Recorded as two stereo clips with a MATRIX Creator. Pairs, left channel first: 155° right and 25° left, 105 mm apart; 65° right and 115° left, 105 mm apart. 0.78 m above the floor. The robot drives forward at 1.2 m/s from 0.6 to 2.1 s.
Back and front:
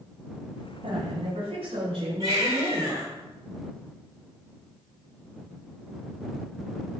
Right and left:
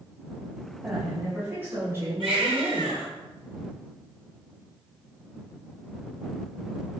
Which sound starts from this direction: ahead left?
A woman speaking, at 0.8 s.